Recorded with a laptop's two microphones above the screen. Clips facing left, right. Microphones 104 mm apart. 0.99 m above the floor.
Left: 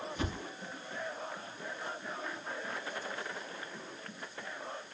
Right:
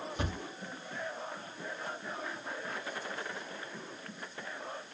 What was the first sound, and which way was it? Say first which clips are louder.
A thud: even; 30° right (ahead or behind).